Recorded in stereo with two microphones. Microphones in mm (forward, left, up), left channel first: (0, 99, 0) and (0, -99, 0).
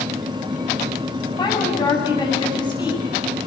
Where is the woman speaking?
20° left (ahead or behind), 9.5 m.